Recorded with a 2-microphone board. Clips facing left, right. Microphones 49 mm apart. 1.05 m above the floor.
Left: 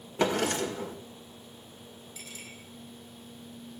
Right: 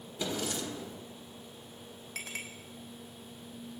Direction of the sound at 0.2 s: 75° left (ahead or behind).